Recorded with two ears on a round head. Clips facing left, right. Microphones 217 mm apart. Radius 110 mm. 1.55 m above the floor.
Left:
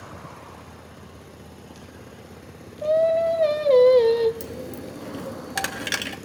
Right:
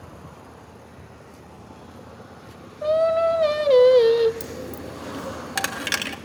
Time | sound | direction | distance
2.8 | singing | 15° right (ahead or behind) | 1.0 m
4.4 | a dropped coin | centre (ahead or behind) | 1.3 m